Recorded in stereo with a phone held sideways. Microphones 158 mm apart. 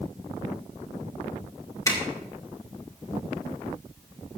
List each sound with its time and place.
1.9 s a zipper: 20° left (ahead or behind), 3 m